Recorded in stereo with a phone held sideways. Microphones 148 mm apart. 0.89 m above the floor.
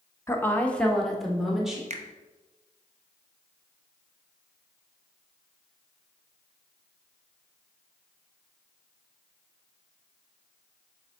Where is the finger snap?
50° right (ahead or behind), 0.7 m.